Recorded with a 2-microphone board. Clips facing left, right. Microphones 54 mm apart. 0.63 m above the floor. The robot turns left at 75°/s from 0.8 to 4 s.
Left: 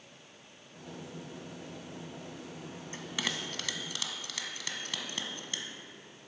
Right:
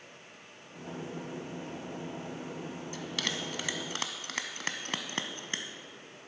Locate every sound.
2.9 s a bell: 30° left (ahead or behind), 0.8 m; by 5.7 s 40° right (ahead or behind), 0.8 m